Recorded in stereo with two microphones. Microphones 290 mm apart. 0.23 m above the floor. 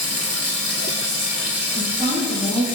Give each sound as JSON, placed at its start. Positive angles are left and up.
{"t": 0.0, "sound": "running water", "side_deg": -55, "distance_m": 0.8}
{"t": 1.7, "sound": "a woman speaking", "side_deg": -15, "distance_m": 1.2}